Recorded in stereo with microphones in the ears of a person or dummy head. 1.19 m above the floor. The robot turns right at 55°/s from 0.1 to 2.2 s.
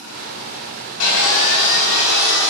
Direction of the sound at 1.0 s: 80° left.